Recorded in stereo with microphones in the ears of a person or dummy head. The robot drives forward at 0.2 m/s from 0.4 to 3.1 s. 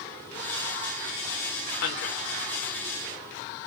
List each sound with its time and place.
1.8 s a man speaking: 70° left (ahead or behind), 0.9 m; by 2.3 s 65° left (ahead or behind), 0.9 m